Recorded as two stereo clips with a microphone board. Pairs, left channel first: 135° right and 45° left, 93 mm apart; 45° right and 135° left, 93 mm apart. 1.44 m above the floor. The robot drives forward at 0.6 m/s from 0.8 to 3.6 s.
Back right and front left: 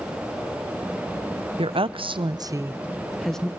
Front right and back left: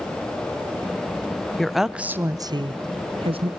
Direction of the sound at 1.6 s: 40° left.